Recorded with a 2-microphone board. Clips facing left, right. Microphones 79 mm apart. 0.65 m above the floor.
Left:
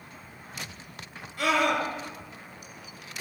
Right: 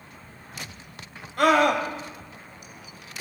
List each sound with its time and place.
1.4 s a scream: 55° right (ahead or behind), 4 m